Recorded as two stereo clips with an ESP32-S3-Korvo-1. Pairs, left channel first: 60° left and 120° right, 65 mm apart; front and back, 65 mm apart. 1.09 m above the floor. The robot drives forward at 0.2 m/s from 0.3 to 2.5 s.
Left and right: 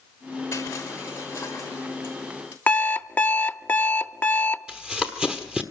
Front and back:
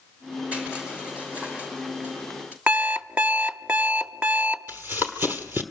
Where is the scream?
No scream in this recording.